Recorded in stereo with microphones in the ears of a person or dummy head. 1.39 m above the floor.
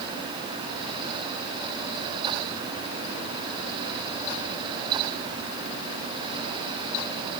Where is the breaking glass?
No breaking glass in this recording.